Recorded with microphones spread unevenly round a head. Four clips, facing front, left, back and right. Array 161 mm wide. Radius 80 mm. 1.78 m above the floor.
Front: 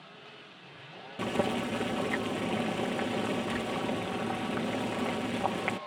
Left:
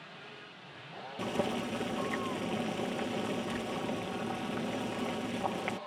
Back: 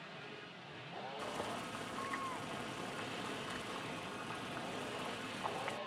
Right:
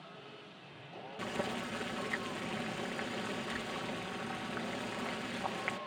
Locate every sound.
1.2 s boiling: 15° left